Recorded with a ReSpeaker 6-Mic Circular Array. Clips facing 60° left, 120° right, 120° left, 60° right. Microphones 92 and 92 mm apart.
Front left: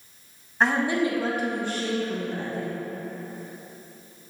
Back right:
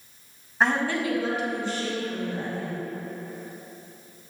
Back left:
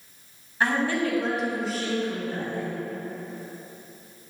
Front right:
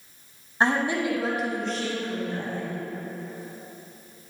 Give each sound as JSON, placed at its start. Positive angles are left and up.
{"t": 0.6, "sound": "a woman speaking", "azimuth_deg": -35, "distance_m": 1.1}